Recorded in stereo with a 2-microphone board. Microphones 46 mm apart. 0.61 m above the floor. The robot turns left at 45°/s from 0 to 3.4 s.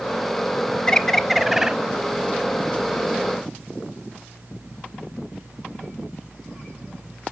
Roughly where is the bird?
Ahead.